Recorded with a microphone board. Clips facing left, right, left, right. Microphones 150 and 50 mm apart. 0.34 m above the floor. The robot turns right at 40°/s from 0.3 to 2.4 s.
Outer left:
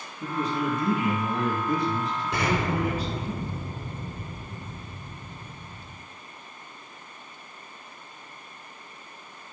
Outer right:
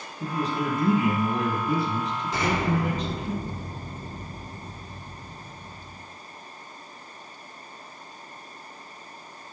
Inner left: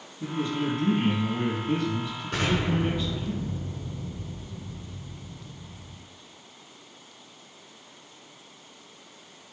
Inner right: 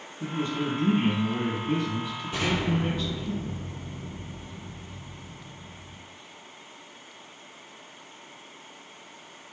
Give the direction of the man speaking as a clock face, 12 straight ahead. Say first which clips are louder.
Even, inner left 1 dB; 2 o'clock.